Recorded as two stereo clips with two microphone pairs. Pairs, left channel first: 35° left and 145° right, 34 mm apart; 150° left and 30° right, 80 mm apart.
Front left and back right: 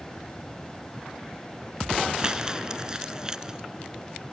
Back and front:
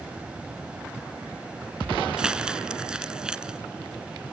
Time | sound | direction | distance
2.2 | crumpling | 100° right | ?